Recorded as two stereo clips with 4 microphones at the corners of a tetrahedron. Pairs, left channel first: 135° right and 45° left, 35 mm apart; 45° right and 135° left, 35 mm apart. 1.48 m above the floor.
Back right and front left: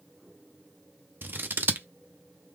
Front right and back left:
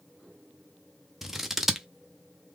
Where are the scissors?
50° left, 0.6 m.